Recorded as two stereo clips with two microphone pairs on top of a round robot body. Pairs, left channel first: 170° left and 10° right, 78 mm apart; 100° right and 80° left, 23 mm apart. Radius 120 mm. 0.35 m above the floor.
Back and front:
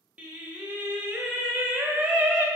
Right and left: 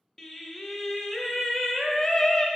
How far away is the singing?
About 0.8 m.